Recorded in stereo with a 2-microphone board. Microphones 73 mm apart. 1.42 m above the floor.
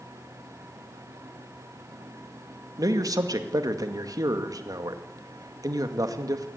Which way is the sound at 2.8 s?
55° right (ahead or behind).